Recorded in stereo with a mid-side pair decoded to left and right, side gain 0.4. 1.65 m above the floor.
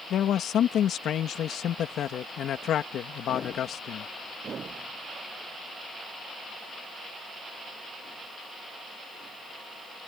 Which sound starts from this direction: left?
A man speaking, at 0.1 s.